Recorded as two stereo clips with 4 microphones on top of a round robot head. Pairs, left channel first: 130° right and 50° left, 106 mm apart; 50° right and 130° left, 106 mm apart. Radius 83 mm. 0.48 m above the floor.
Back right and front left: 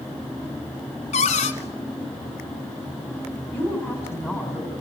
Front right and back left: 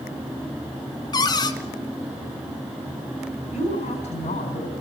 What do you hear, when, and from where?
1.1 s a cupboard door: 105° right, 1.8 m
3.5 s a woman speaking: 60° right, 4 m